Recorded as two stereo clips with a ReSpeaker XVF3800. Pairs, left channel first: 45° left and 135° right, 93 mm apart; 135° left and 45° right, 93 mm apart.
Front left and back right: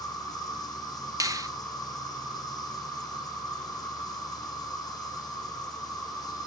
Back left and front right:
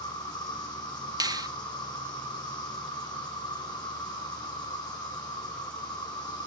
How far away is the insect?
About 1.8 m.